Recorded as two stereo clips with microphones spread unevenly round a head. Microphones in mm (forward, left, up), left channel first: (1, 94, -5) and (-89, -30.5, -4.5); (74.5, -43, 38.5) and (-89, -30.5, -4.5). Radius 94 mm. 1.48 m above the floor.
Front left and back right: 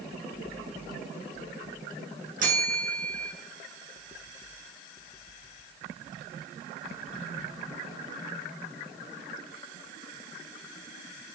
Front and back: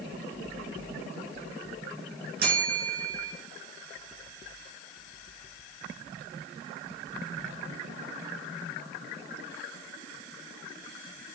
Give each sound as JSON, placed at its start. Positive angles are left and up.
{"t": 2.4, "sound": "a bell", "azimuth_deg": -160, "distance_m": 2.5}